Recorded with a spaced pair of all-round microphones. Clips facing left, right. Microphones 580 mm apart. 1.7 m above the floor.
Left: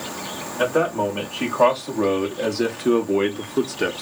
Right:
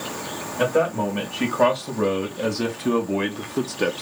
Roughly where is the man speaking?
Right.